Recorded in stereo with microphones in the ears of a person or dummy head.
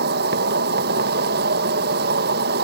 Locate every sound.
0.0 s an insect: 60° right (ahead or behind)